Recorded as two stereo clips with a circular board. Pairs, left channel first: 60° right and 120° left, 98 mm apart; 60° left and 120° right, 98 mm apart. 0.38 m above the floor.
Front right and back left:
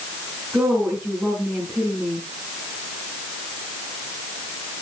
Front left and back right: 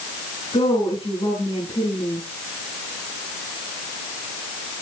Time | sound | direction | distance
0.5 | a woman speaking | 45° left | 4.5 m